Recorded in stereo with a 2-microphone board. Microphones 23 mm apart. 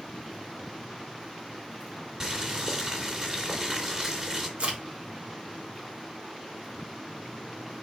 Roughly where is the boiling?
Right.